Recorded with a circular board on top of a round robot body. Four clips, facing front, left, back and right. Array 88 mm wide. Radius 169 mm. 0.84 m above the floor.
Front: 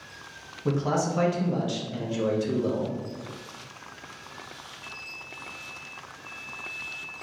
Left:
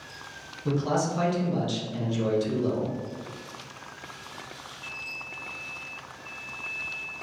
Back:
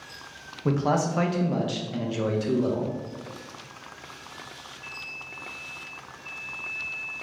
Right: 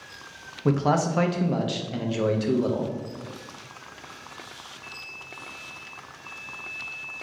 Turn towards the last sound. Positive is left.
turn(degrees=-110)